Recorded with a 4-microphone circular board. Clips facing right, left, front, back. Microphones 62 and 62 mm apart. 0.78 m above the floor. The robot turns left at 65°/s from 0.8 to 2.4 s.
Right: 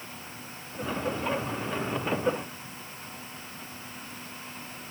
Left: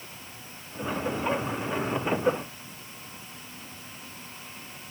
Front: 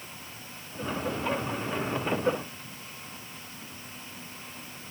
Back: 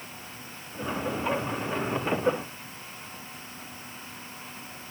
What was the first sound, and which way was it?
Only background noise.